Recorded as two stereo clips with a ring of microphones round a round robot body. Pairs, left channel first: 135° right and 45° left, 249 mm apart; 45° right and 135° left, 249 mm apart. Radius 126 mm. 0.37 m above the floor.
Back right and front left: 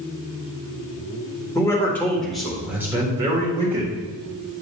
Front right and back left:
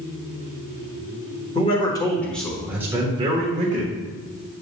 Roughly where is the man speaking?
Right.